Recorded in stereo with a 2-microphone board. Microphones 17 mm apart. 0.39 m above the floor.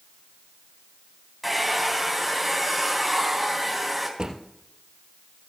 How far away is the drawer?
About 2.5 m.